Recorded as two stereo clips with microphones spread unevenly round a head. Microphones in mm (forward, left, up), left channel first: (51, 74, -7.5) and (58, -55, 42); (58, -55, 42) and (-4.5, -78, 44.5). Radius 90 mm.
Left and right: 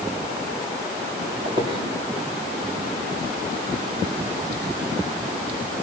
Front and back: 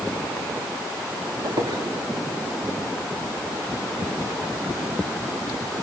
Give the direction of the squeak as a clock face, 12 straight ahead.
5 o'clock.